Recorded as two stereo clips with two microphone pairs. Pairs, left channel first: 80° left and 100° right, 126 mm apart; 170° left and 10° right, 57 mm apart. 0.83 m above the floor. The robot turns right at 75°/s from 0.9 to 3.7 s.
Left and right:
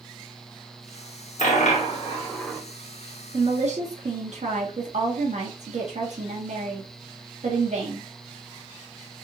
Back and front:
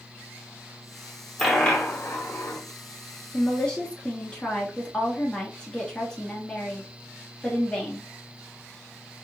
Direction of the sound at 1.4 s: 80° left.